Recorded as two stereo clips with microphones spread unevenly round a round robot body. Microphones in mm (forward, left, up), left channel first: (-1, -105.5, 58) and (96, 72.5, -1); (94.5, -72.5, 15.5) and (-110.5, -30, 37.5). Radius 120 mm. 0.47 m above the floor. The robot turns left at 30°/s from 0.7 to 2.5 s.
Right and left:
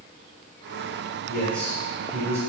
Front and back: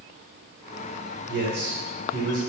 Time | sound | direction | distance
1.3 | a man speaking | 150° left | 1.4 m